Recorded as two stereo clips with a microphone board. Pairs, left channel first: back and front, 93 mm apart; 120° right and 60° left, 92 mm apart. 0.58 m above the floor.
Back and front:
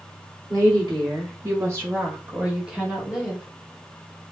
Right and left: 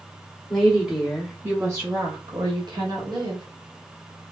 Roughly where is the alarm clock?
I don't hear an alarm clock.